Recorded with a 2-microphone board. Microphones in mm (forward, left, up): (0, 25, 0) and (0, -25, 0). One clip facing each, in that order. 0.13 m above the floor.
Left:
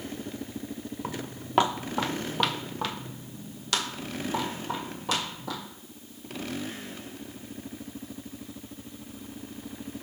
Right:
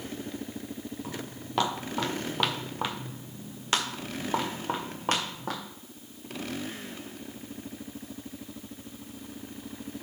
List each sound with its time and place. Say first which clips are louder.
1.0 s footsteps: left 2 dB; 40° left (ahead or behind), 1.3 m; by 5.6 s 50° right (ahead or behind), 2.5 m